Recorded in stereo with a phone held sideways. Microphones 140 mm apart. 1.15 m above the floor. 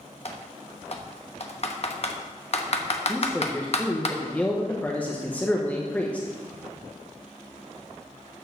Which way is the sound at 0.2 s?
50° left (ahead or behind).